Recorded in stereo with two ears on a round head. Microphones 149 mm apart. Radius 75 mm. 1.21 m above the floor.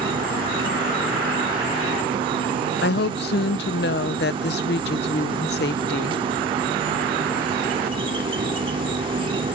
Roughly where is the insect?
Right.